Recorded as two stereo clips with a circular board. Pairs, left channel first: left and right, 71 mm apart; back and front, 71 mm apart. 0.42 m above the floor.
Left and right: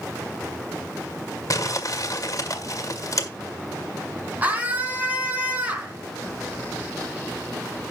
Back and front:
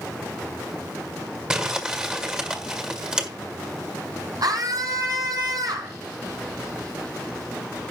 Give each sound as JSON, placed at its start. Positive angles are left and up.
{"t": 1.5, "sound": "crumpling", "azimuth_deg": 75, "distance_m": 1.8}
{"t": 4.4, "sound": "a scream", "azimuth_deg": -25, "distance_m": 4.0}